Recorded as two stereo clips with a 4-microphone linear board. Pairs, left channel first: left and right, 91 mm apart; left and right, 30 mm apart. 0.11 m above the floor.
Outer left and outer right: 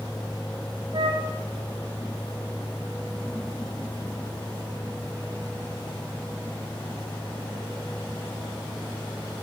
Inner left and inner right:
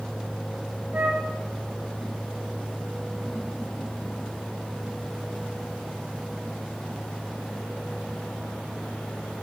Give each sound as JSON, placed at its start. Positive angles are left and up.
{"t": 0.9, "sound": "a flute", "side_deg": -60, "distance_m": 4.5}